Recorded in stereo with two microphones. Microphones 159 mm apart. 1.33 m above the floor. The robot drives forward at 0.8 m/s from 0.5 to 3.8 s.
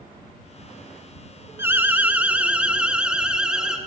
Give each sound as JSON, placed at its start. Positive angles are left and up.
{"t": 1.6, "sound": "an alarm", "side_deg": -15, "distance_m": 1.0}